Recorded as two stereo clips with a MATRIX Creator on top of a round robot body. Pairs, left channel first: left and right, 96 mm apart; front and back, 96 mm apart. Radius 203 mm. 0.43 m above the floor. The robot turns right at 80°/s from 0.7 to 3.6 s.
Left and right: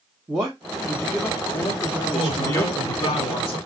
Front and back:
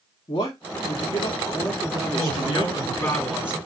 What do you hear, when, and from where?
0.3 s a man speaking: 20° right, 1.7 m; by 3.1 s 170° left, 1.7 m
2.1 s a man speaking: 5° right, 3 m; by 3.6 s 115° left, 3 m